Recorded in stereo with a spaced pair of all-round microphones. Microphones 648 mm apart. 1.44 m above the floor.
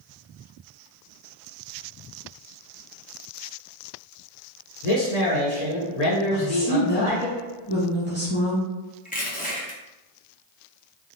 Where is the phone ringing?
No phone ringing in this recording.